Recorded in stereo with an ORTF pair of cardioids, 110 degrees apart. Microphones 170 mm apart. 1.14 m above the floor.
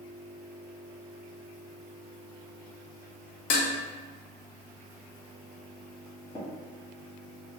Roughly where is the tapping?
Ahead left.